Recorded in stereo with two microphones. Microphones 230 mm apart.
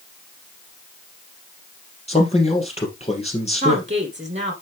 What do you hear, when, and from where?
2.1 s a man speaking: 30° left (ahead or behind), 3 m
3.6 s a woman speaking: 30° right (ahead or behind), 1.6 m